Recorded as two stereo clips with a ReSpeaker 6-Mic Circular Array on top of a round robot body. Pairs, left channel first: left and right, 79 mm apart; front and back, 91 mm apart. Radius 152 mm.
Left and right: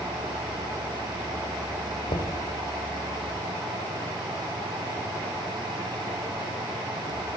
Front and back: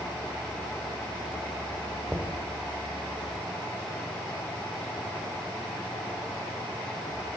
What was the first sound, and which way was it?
Knocking, 85° left.